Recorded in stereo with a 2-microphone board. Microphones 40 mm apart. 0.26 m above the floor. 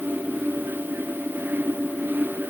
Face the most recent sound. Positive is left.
No sound to turn to.